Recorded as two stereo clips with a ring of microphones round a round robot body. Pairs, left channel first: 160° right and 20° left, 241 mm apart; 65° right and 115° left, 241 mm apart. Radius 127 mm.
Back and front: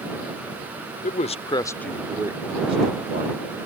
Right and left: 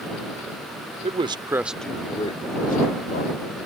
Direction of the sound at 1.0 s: 165° left.